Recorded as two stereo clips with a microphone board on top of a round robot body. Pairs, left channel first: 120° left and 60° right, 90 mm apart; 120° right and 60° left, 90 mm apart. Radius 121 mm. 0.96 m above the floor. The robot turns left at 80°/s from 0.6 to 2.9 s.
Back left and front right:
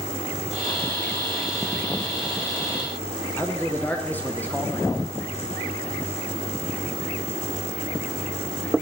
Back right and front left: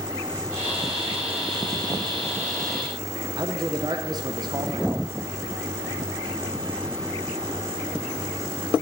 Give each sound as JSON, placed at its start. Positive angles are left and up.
{"t": 3.4, "sound": "a man speaking", "azimuth_deg": 60, "distance_m": 0.9}